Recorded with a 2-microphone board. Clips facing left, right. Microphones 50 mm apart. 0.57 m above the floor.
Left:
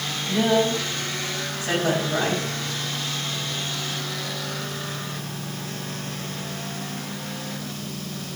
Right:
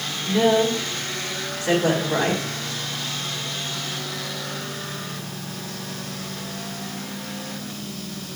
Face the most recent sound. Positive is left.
turn(degrees=-75)  # may be behind; listen again after turning